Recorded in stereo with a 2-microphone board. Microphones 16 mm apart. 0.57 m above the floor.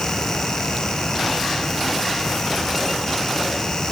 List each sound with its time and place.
Only background noise.